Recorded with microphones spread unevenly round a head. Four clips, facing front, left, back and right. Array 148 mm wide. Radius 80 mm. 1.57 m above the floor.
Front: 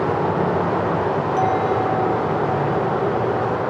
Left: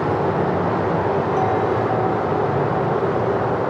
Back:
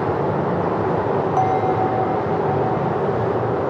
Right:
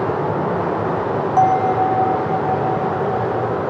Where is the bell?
100° right, 0.8 m.